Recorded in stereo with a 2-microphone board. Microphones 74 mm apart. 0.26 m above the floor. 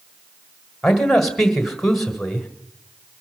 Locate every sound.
0.8 s a man speaking: 5° left (ahead or behind), 1.6 m